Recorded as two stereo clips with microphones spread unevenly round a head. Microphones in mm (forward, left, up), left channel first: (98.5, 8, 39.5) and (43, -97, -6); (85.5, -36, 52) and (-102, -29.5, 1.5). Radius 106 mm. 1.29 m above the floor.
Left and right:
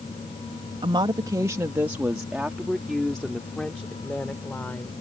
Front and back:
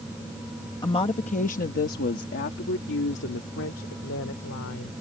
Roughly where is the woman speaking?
Right.